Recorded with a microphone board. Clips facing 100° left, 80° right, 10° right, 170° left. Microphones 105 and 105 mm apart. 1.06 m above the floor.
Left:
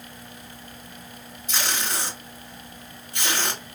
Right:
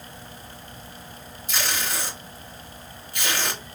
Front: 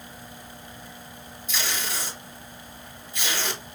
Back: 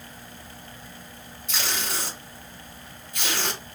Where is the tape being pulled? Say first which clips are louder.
Even, back 1 dB; 165° left, 1.9 m.